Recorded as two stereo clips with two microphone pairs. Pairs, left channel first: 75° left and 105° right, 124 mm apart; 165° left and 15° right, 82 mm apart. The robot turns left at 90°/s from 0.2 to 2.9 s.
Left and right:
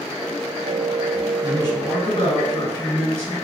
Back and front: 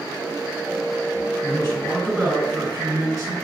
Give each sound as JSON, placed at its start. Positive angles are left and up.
{"t": 1.4, "sound": "a man speaking", "azimuth_deg": 135, "distance_m": 1.6}